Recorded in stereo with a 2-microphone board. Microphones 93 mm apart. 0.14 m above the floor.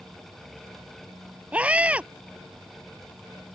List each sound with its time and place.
1.5 s a scream: 15° right (ahead or behind)